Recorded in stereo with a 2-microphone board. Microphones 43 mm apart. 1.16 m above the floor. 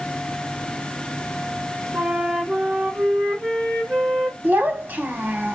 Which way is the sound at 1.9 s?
30° right (ahead or behind).